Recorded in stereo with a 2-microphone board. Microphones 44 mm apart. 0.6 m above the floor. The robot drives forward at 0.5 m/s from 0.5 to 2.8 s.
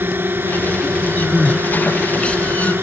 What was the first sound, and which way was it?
A drone, 55° right (ahead or behind).